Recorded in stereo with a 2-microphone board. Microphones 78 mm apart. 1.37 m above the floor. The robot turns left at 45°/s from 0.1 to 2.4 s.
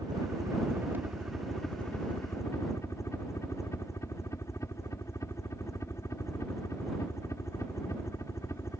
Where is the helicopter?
115° right; by 8.8 s 140° left.